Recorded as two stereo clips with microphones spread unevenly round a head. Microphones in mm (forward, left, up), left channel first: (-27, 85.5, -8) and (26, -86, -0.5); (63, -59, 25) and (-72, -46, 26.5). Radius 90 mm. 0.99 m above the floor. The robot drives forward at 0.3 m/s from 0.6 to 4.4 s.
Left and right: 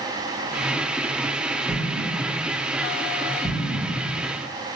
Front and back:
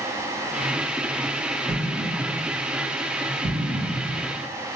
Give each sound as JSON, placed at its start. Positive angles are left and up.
{"t": 1.7, "sound": "an explosion", "azimuth_deg": 170, "distance_m": 2.0}